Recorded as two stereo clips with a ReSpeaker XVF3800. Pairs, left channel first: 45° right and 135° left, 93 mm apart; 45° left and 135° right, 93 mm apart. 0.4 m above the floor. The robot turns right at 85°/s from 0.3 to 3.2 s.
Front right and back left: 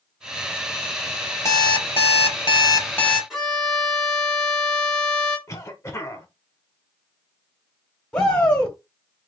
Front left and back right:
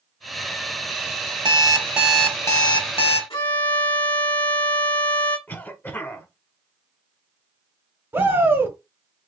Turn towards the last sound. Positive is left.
turn(degrees=-115)